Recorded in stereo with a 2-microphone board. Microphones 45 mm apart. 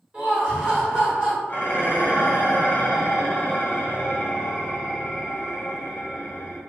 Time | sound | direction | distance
0.1 | laughter | 25° right (ahead or behind) | 1.3 m
1.5 | dishes clattering | 40° left (ahead or behind) | 0.8 m